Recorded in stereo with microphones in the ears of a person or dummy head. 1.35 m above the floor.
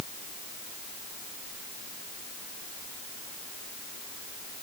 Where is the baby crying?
No baby crying in this recording.